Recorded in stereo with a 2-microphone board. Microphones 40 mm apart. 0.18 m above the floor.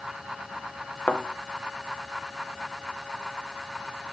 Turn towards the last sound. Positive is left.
turn(degrees=35)  # may be behind; listen again after turning